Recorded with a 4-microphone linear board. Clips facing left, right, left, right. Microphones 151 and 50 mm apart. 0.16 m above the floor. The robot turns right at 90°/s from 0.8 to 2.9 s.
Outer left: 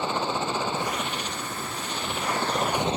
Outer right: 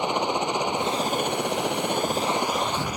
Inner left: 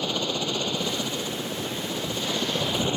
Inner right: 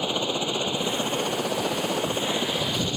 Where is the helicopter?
160° right; by 3.0 s 25° left.